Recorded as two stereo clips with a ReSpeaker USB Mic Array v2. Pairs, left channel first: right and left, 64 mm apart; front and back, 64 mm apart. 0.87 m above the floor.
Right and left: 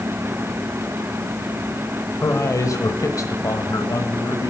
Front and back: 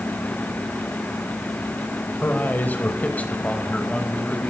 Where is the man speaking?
55° right, 3.5 m; by 4.5 s 75° right, 4.5 m.